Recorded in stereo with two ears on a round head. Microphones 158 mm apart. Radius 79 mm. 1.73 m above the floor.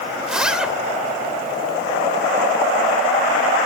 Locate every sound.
0.2 s a zipper: 5° right (ahead or behind), 1.7 m